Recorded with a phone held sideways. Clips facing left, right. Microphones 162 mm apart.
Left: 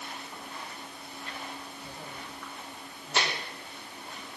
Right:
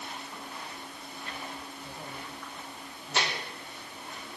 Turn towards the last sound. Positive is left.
No sound to turn to.